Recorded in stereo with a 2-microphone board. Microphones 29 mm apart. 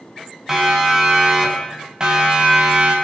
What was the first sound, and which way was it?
A siren, 15° right (ahead or behind).